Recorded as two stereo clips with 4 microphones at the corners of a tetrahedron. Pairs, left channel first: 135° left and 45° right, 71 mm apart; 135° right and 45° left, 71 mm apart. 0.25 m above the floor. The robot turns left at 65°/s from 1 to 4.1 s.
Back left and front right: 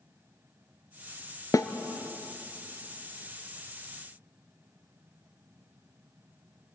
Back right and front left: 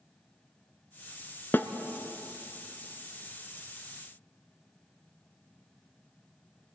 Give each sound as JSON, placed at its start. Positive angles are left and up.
{"t": 1.5, "sound": "a snare drum", "azimuth_deg": 170, "distance_m": 1.0}